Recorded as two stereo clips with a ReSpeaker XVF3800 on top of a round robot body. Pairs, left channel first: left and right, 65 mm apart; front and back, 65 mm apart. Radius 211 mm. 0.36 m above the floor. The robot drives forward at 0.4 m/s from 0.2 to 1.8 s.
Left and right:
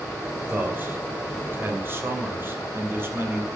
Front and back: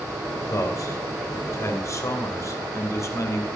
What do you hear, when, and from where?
0.5 s a man speaking: 30° right, 3 m; by 3.5 s 35° right, 3 m